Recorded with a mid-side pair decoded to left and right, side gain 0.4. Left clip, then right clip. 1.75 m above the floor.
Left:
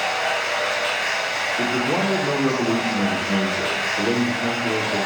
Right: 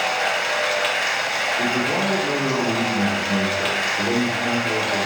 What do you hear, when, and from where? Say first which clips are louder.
0.0 s running water: right 1 dB; 60° right, 0.9 m
1.6 s a man speaking: even; 45° left, 1.4 m